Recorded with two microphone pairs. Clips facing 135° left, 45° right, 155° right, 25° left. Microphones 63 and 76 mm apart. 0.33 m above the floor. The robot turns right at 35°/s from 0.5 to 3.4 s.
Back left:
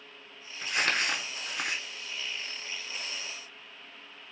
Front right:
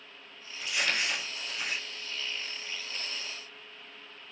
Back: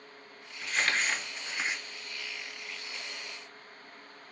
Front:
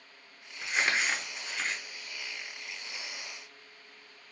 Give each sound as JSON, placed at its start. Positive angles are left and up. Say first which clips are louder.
{"t": 0.6, "sound": "crumpling", "louder": "back left 2 dB, front 1 dB", "azimuth_deg": 90, "distance_m": 0.7}